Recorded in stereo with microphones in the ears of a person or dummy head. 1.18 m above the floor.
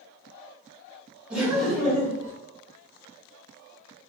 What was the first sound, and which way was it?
Laughter, 5° right (ahead or behind).